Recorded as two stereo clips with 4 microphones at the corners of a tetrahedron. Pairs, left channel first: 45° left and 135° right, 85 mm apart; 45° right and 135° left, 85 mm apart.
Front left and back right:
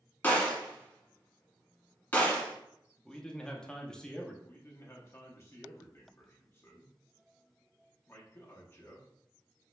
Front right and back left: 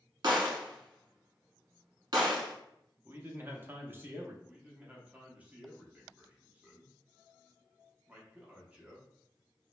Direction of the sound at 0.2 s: 110° left.